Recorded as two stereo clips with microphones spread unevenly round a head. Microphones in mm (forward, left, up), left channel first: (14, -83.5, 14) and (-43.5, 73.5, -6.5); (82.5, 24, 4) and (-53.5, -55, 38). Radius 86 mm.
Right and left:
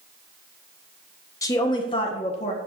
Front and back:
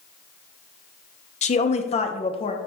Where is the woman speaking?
5° left, 1.3 m; by 2.6 s 15° right, 1.6 m.